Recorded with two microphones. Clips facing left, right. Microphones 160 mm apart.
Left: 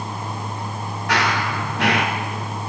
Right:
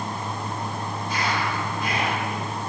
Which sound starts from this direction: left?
Running footsteps, at 1.1 s.